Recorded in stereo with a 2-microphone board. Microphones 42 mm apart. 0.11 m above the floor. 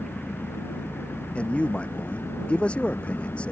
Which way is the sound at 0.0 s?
60° left (ahead or behind).